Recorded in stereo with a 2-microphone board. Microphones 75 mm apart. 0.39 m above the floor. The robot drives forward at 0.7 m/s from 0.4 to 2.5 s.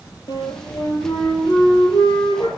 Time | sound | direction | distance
0.3 | a flute | 85° left | 6 m